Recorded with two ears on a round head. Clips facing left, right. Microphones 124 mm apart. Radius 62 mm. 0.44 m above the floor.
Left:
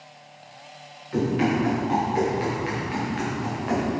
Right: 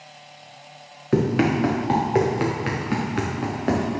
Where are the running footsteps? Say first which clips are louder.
Right 3 dB; 75° right (ahead or behind), 3 m; by 3.9 s 55° right (ahead or behind), 3.5 m.